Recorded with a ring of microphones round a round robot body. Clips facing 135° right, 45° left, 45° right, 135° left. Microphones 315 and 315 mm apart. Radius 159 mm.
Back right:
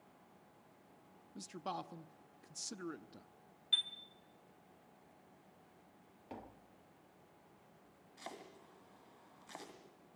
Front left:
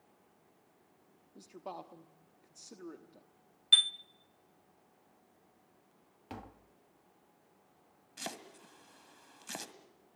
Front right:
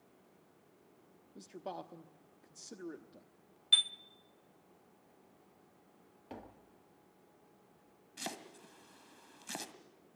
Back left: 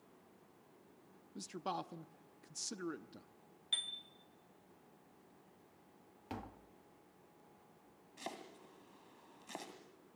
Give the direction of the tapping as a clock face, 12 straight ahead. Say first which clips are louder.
Front left 3 dB, back left 2 dB; 9 o'clock.